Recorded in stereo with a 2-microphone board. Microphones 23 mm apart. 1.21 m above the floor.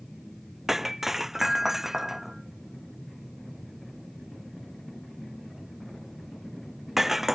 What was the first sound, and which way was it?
Breaking glass, 10° right (ahead or behind).